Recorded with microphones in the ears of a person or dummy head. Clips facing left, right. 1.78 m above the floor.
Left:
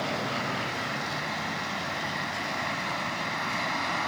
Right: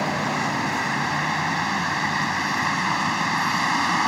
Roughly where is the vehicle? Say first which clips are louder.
Right 6 dB; right.